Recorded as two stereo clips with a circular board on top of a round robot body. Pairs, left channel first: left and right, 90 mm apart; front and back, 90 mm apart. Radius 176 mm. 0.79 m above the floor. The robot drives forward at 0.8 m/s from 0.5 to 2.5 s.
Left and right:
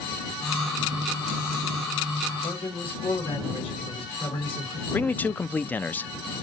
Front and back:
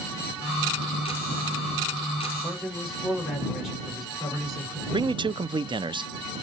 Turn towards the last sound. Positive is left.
turn(degrees=160)